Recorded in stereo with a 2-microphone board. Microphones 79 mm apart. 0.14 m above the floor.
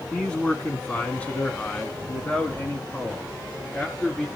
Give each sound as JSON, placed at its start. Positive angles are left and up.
{"t": 0.1, "sound": "a man speaking", "side_deg": 10, "distance_m": 1.7}